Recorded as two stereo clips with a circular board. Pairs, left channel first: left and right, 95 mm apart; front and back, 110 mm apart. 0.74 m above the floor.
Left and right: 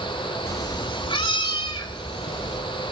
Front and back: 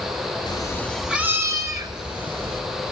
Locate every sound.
0.5 s a cat meowing: 35° left, 1.0 m; by 2.6 s 140° left, 3 m